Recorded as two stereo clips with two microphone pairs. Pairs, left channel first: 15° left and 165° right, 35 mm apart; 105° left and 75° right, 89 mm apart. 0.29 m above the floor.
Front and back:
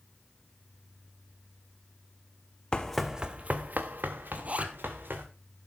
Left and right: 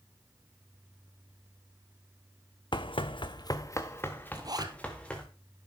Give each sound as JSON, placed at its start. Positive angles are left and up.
{"t": 2.7, "sound": "running footsteps", "azimuth_deg": 80, "distance_m": 0.9}
{"t": 4.3, "sound": "a zipper", "azimuth_deg": -115, "distance_m": 1.3}